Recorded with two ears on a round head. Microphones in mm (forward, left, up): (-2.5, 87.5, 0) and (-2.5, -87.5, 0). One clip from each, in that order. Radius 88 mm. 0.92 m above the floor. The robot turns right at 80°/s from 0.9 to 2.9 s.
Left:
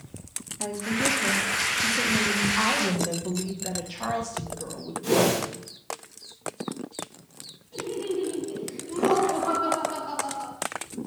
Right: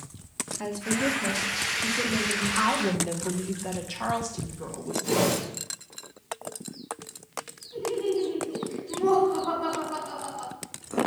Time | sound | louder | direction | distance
0.6 | a woman speaking | left 1 dB | 35° right | 1.5 m
2.5 | a woman speaking | left 1 dB | centre (ahead or behind) | 1.0 m
5.0 | a whoosh | left 3 dB | 25° left (ahead or behind) | 4 m
7.7 | laughter | right 3 dB | 20° left (ahead or behind) | 5.5 m